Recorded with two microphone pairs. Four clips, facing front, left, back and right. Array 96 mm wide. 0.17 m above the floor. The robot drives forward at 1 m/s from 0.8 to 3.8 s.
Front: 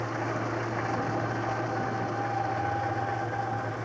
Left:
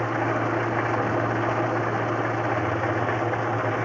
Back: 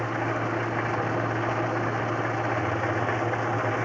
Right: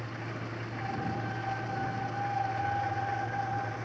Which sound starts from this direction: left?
An engine running, at 0.0 s.